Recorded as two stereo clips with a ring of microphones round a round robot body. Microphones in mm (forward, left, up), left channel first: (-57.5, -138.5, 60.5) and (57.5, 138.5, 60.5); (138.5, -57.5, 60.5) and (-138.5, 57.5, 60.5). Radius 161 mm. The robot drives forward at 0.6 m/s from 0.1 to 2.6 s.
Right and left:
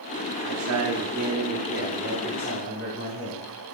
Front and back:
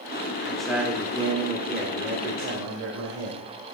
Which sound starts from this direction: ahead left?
A man speaking, at 0.4 s.